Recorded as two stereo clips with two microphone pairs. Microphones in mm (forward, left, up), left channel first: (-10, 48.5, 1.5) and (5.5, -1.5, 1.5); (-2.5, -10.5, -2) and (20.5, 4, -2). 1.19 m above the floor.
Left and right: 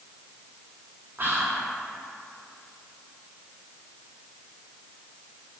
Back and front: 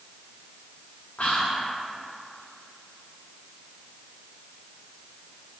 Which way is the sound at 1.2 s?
115° right.